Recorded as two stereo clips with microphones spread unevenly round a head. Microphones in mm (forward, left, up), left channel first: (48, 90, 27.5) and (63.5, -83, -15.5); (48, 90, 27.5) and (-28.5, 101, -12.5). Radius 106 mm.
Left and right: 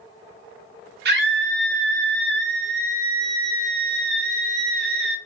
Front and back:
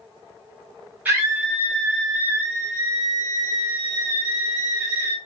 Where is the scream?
85° right, 0.9 m.